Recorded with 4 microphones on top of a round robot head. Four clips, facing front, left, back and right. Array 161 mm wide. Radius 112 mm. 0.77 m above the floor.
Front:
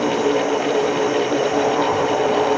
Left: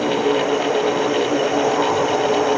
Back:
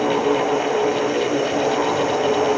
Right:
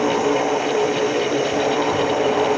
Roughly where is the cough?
No cough in this recording.